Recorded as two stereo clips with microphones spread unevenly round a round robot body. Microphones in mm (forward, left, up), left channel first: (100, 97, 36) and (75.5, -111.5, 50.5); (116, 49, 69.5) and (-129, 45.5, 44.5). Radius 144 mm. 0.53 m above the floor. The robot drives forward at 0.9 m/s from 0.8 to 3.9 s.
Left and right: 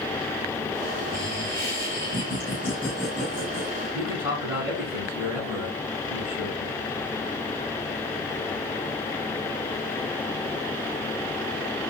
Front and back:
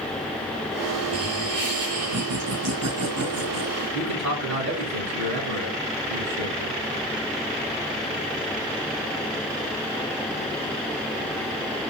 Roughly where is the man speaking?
Behind.